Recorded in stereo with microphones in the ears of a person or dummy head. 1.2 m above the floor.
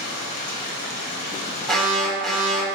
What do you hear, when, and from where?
0.0 s running water: 55° left (ahead or behind), 1.0 m
1.7 s an alarm: 5° left (ahead or behind), 1.0 m